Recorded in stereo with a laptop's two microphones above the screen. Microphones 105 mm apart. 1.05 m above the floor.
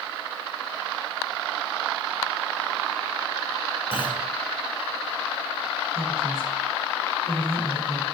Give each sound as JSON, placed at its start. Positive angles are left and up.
{"t": 3.9, "sound": "a clunk", "side_deg": 55, "distance_m": 7.5}
{"t": 5.9, "sound": "a woman speaking", "side_deg": -65, "distance_m": 4.5}